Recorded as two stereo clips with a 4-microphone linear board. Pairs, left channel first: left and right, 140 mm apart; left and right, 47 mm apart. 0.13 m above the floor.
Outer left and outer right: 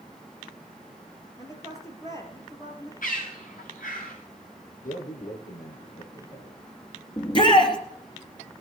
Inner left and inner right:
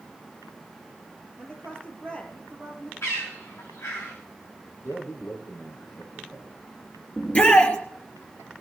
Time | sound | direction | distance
1.4 | a woman speaking | 25° left (ahead or behind) | 3 m
3.0 | a bird | 75° left (ahead or behind) | 7.5 m
4.8 | a man speaking | 75° left (ahead or behind) | 6 m
7.2 | a shout | 35° left (ahead or behind) | 2.5 m